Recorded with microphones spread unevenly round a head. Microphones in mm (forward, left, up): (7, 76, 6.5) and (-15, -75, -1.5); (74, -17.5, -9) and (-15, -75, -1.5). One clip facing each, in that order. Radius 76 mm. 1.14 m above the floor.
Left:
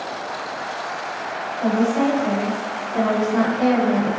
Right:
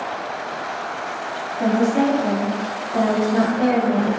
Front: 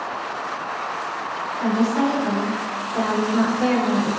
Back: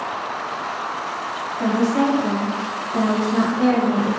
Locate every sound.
1.6 s a woman speaking: 110° right, 1.0 m; by 4.1 s straight behind, 1.5 m